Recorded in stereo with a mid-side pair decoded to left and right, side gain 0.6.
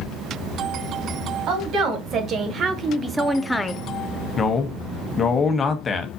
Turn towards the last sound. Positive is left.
turn(degrees=25)